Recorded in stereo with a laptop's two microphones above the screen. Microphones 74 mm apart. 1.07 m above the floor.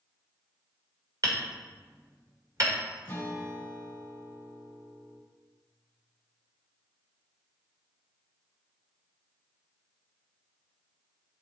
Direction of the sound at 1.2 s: 50° right (ahead or behind).